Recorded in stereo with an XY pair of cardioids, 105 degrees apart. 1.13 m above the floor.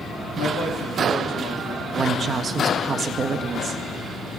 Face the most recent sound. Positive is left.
turn(degrees=-45)